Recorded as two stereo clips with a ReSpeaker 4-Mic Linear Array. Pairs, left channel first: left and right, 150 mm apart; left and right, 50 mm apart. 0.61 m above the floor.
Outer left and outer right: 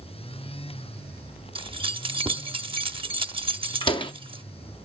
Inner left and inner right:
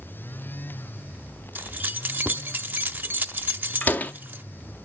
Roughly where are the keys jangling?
Right.